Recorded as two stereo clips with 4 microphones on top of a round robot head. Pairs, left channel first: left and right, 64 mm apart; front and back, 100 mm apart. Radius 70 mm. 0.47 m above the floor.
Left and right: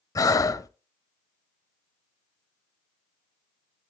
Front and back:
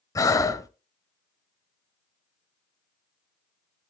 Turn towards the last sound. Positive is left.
turn(degrees=60)